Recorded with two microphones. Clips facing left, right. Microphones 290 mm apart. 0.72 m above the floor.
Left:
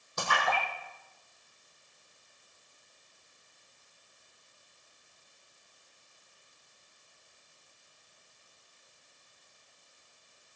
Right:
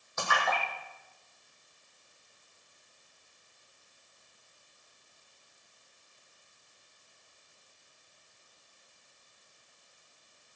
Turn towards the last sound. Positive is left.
turn(degrees=35)  # may be behind; listen again after turning